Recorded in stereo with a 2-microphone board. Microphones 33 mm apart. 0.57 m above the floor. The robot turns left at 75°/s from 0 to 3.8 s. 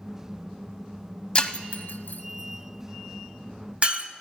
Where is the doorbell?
I don't hear a doorbell.